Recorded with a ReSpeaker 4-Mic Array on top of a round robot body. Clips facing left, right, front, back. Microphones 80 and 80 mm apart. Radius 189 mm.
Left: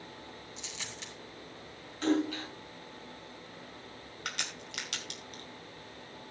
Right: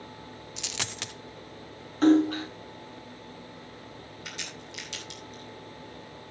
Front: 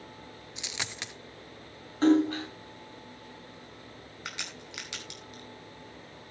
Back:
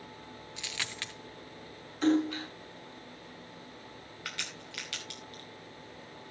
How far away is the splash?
About 7 m.